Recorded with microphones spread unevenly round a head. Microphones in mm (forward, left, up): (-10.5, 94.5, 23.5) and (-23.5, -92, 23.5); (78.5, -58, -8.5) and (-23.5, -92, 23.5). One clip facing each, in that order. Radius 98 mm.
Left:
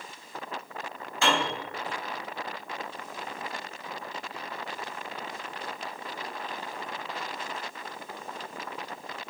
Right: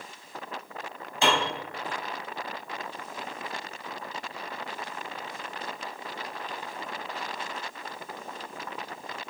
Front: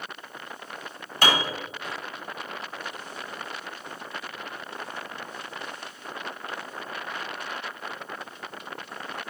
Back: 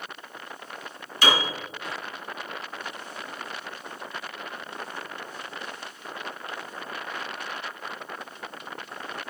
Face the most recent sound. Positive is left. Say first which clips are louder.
# right 1 dB, even
turn(degrees=-20)